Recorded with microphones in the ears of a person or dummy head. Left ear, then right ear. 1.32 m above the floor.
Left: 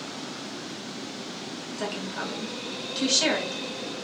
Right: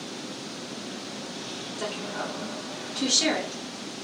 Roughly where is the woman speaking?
Centre.